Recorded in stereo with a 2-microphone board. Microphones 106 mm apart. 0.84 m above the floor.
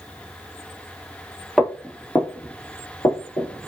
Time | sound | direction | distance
1.6 | footsteps | 5° left (ahead or behind) | 1.0 m